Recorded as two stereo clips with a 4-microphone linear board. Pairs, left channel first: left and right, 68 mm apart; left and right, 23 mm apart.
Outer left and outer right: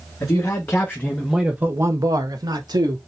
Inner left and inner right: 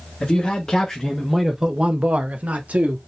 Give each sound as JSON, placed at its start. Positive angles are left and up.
{"t": 0.2, "sound": "a man speaking", "side_deg": 45, "distance_m": 1.2}